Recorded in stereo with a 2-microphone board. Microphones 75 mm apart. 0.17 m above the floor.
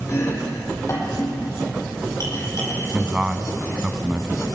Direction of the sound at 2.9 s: 15° right (ahead or behind).